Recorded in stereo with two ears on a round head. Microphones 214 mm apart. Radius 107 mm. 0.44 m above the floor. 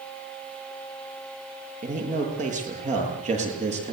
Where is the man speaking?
35° right (ahead or behind), 10 m; by 3.9 s 30° right (ahead or behind), 9 m.